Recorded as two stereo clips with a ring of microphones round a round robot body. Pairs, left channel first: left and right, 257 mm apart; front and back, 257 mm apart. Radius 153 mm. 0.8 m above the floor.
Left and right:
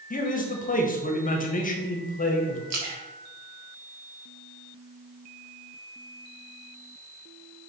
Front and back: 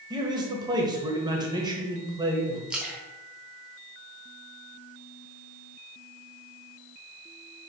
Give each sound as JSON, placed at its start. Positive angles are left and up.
{"t": 0.1, "sound": "a man speaking", "azimuth_deg": 115, "distance_m": 1.2}
{"t": 2.7, "sound": "a splash", "azimuth_deg": -95, "distance_m": 1.6}